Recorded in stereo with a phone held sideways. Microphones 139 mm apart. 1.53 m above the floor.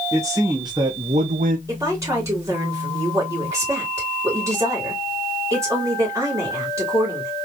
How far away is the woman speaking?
About 2.5 m.